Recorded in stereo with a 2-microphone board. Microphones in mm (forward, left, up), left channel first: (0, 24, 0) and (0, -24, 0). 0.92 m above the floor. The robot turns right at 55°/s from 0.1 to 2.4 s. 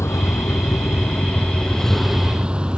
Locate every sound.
0.0 s a vehicle: 75° left; by 2.8 s 160° right